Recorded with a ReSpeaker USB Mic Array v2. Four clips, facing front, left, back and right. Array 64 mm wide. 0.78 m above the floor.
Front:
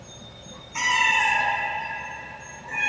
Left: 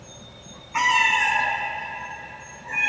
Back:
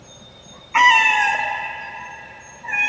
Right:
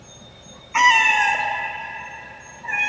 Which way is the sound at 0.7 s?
165° right.